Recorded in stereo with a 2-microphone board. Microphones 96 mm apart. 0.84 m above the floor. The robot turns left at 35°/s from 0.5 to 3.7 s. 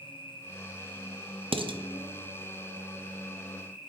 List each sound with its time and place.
0.0 s an insect: 110° left, 2.5 m; by 3.9 s straight ahead, 2.5 m
1.5 s dishes clattering: 65° right (ahead or behind), 0.6 m; by 1.8 s 55° right (ahead or behind), 0.6 m